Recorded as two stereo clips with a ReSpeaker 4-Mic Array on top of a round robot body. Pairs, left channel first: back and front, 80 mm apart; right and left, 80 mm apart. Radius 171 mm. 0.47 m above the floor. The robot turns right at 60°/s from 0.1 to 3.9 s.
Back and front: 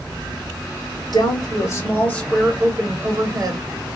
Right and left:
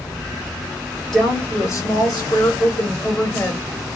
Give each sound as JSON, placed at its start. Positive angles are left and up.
{"t": 1.1, "sound": "a woman speaking", "azimuth_deg": -175, "distance_m": 1.3}